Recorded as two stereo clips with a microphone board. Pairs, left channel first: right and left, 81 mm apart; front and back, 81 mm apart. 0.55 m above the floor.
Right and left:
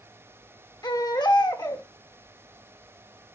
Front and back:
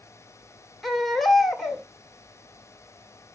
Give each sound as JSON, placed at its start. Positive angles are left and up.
{"t": 0.8, "sound": "a baby crying", "azimuth_deg": -90, "distance_m": 1.6}